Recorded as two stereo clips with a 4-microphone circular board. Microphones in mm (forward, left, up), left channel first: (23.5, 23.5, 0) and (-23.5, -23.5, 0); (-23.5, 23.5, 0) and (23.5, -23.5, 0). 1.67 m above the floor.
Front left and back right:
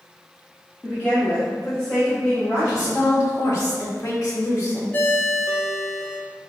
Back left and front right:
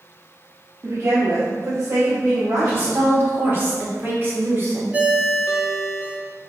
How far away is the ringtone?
About 0.9 m.